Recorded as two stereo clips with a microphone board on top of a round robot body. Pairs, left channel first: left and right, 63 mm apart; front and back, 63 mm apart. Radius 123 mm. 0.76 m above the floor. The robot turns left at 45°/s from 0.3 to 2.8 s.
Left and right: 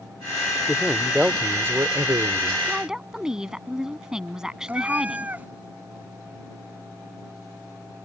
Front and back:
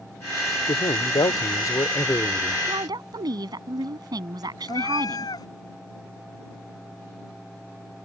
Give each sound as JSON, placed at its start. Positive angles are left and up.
{"t": 0.7, "sound": "a man speaking", "azimuth_deg": 10}
{"t": 2.7, "sound": "a woman speaking", "azimuth_deg": -165}
{"t": 4.7, "sound": "a cat meowing", "azimuth_deg": -25}